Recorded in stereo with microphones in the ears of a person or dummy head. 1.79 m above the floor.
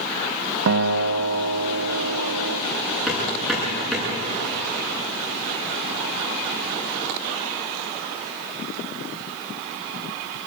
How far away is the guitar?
About 0.7 m.